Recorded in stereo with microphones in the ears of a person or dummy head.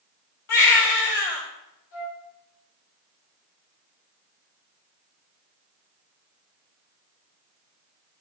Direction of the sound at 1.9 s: 75° left (ahead or behind).